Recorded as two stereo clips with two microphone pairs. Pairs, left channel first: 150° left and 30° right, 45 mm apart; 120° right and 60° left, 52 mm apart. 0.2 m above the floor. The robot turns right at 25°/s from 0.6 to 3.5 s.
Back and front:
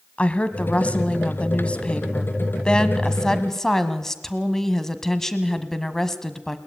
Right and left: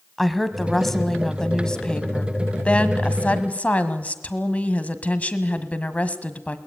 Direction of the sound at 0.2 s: 150° left.